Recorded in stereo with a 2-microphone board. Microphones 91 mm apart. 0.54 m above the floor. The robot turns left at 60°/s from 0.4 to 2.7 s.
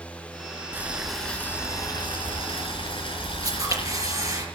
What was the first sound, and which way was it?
Boiling, 155° right.